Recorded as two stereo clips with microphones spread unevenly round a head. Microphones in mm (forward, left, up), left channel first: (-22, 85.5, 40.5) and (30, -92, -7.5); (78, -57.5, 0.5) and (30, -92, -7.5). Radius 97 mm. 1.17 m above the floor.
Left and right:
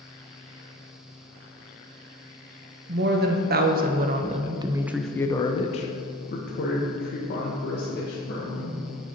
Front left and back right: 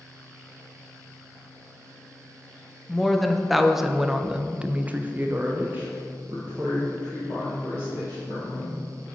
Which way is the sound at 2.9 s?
55° right.